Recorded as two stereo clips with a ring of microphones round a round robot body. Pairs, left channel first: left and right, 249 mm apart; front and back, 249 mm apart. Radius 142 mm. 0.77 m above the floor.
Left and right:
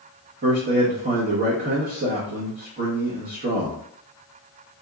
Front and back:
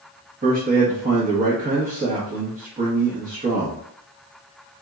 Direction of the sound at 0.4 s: 135° right.